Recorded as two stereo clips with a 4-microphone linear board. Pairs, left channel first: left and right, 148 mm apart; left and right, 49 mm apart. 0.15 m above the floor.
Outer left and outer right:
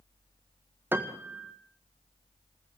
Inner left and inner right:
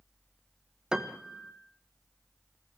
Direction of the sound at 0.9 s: 15° right (ahead or behind).